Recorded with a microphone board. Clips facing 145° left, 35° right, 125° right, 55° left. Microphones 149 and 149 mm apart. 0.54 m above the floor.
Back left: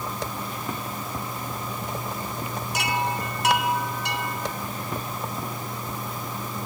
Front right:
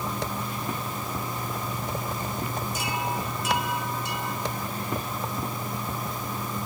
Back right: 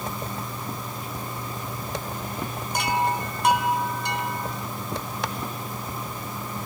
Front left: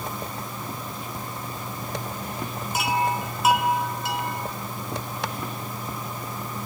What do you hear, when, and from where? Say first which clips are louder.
2.7 s a chime: back left 6 dB, even; 140° left, 3.5 m